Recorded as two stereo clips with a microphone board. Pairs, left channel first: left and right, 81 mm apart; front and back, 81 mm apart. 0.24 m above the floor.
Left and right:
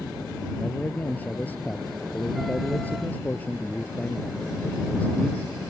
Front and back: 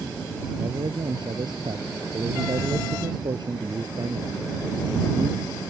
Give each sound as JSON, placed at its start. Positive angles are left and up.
{"t": 0.6, "sound": "a man speaking", "azimuth_deg": 160}